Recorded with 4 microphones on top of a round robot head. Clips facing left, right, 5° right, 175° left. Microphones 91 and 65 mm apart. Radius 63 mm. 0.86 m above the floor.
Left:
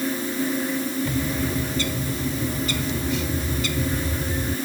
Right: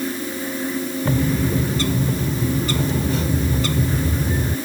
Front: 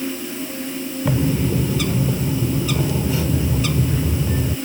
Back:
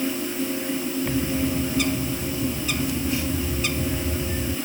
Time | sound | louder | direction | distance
1.1 | a bird | right 5 dB, front 7 dB | 25° right | ?